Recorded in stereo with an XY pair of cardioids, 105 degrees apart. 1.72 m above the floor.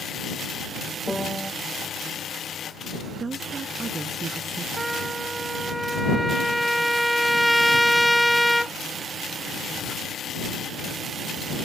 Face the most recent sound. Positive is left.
turn(degrees=-5)